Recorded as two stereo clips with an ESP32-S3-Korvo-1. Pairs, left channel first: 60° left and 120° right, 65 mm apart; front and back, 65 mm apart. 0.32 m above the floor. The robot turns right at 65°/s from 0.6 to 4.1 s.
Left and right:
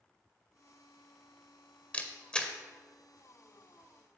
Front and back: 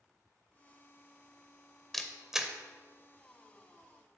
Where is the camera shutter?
80° left, 0.5 m; by 2.5 s 120° left, 0.5 m.